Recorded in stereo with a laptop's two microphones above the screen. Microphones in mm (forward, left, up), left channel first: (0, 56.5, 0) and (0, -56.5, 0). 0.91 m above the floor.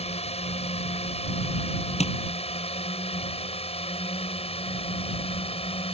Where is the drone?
65° left (ahead or behind); by 5.9 s 60° left (ahead or behind).